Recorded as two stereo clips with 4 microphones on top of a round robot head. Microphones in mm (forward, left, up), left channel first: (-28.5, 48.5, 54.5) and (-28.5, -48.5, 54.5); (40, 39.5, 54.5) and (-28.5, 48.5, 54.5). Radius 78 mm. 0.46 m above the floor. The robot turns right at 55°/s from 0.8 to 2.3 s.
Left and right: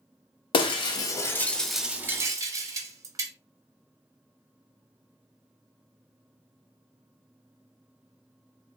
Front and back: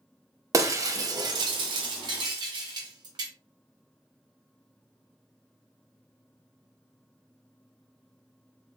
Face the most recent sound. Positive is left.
turn(degrees=-145)